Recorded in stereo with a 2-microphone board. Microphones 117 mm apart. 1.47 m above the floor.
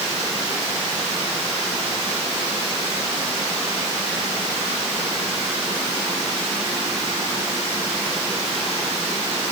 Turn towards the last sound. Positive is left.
No sound to turn to.